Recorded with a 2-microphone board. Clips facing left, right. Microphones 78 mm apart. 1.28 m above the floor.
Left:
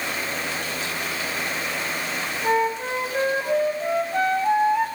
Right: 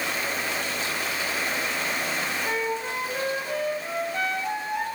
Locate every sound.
2.4 s a flute: 35° left (ahead or behind), 5 m